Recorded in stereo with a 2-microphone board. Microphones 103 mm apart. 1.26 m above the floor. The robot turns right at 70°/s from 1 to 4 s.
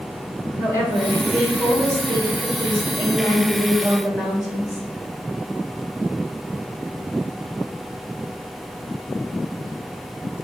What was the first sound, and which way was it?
A woman speaking, 150° left.